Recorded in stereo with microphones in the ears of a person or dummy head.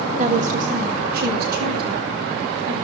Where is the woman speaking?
40° right (ahead or behind), 1.8 m; by 2.7 s 60° right (ahead or behind), 3.5 m.